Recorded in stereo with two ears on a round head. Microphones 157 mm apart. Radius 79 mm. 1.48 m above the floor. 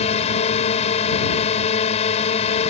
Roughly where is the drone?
Left.